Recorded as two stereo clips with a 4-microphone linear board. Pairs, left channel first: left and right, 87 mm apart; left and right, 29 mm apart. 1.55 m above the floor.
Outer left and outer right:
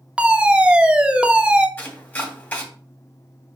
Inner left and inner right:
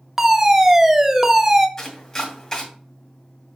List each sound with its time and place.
0.2 s a fire alarm: 15° right (ahead or behind), 0.7 m
1.8 s chopping: 20° left (ahead or behind), 2 m